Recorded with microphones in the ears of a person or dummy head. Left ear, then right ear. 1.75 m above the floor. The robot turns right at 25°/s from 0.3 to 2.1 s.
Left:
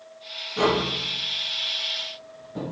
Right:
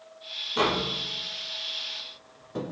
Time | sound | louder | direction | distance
0.6 | tapping | left 3 dB | 40° right (ahead or behind) | 0.6 m